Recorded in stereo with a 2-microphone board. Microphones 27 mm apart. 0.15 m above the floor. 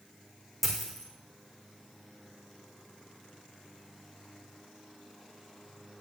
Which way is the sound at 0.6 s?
Centre (ahead or behind).